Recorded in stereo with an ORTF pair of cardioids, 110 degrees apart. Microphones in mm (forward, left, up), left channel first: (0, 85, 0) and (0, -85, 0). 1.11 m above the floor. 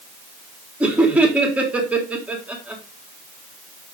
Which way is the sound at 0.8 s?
5° right.